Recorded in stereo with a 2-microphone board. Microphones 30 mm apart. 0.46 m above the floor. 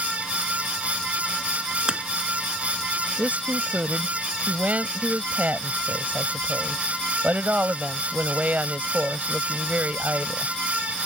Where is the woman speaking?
55° right (ahead or behind).